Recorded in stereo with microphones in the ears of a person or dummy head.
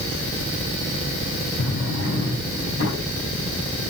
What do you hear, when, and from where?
1.6 s a drawer: 75° left (ahead or behind), 7 m